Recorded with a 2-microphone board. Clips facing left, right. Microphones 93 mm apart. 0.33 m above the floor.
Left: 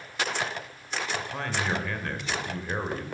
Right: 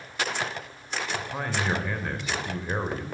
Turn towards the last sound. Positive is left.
turn(degrees=-10)  # may be behind; listen again after turning